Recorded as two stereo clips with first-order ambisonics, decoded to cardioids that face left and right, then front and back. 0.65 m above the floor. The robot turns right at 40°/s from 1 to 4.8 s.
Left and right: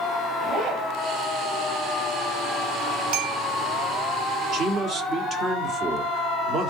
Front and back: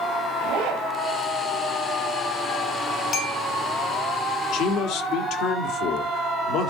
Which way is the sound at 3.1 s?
70° right.